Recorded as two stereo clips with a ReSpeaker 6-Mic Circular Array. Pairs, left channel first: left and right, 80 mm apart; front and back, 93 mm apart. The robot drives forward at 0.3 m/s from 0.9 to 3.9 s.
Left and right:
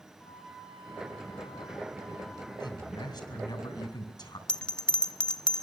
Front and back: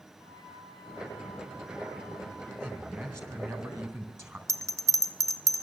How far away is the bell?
About 1.0 m.